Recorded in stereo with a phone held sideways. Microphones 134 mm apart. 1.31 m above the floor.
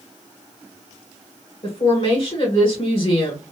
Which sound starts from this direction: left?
A woman speaking, at 1.6 s.